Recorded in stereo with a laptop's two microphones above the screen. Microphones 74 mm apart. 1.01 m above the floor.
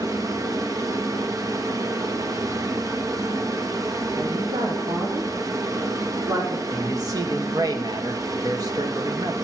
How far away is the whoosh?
No whoosh in this recording.